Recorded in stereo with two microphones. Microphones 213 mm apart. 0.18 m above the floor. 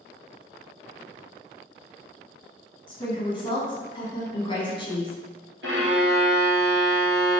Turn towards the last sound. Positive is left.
turn(degrees=-65)  # may be behind; listen again after turning